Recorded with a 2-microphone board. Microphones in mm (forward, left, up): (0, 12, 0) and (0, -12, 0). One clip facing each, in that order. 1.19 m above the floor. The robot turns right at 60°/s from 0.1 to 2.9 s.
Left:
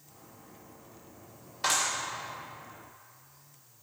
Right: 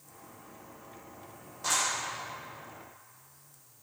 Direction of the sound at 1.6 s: 65° left (ahead or behind).